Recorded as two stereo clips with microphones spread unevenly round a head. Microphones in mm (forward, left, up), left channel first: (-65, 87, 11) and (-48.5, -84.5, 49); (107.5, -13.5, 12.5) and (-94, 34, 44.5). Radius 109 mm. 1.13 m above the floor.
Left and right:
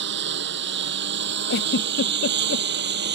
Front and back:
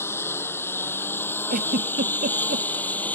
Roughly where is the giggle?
Behind left.